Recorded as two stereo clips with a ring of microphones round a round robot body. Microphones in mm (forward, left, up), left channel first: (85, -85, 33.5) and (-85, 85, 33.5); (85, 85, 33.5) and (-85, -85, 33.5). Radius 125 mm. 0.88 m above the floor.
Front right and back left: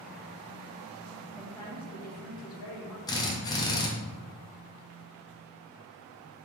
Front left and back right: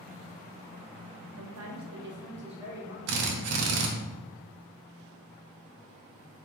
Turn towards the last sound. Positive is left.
turn(degrees=-120)